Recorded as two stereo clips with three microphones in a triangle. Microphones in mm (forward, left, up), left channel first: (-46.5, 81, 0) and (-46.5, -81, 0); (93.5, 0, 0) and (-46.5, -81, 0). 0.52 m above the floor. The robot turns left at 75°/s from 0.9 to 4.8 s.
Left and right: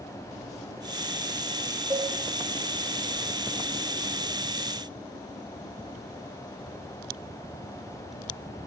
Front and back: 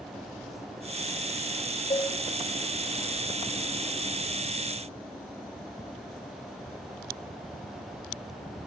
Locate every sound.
1.9 s a cowbell: 15° right, 1.5 m; by 2.1 s 30° right, 1.5 m